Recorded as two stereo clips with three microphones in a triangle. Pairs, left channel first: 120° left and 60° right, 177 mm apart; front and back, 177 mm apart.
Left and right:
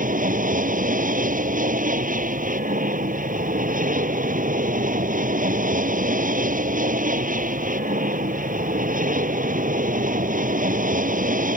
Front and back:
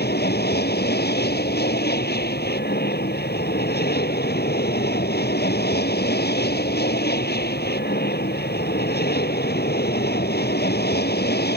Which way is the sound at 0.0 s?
20° right.